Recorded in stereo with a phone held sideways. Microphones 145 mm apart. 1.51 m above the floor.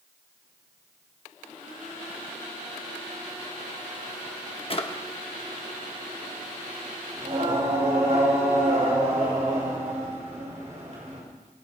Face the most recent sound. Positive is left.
turn(degrees=-50)  # may be behind; listen again after turning